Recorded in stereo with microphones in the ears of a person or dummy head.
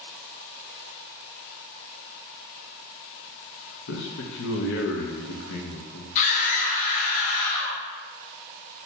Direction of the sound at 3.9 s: 70° left (ahead or behind).